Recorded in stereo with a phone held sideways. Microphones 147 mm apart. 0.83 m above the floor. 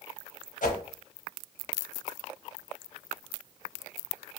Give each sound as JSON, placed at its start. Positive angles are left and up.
{"t": 0.6, "sound": "a whoosh", "side_deg": 65, "distance_m": 1.2}